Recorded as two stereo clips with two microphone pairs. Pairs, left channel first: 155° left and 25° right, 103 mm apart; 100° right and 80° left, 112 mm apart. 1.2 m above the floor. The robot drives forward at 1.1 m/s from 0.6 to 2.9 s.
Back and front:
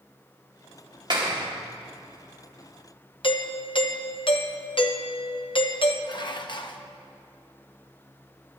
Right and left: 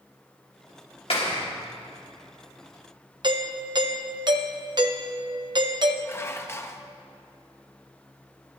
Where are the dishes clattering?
165° right, 0.8 m.